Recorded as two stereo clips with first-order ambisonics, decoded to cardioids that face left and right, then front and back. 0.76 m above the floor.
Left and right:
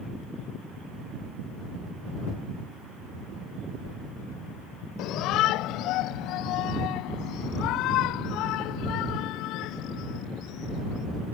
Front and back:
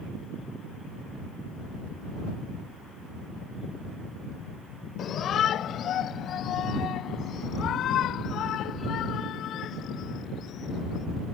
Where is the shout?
55° left.